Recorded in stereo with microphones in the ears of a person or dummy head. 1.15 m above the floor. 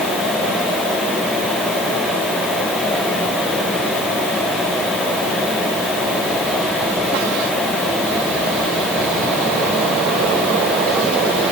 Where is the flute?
I don't hear a flute.